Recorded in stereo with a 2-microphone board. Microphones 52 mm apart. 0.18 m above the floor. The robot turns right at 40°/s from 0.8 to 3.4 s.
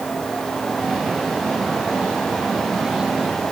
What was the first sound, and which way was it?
Only background noise.